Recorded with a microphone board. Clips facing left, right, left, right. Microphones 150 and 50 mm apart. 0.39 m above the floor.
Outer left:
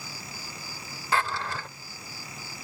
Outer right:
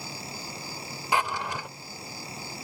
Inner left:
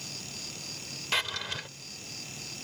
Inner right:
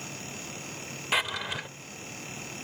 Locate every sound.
0.0 s an insect: 20° right (ahead or behind)
1.1 s a drawer: 15° right (ahead or behind)